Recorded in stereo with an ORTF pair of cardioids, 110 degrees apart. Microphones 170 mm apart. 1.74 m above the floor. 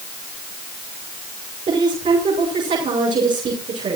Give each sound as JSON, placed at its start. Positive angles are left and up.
{"t": 1.7, "sound": "a woman speaking", "azimuth_deg": -45, "distance_m": 7.5}